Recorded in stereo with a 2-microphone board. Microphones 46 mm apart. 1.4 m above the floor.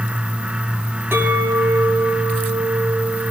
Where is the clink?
65° right (ahead or behind), 7 m.